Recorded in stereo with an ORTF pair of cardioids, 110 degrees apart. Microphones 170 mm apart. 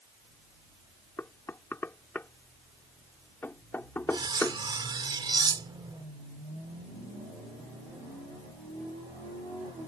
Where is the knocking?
10° left.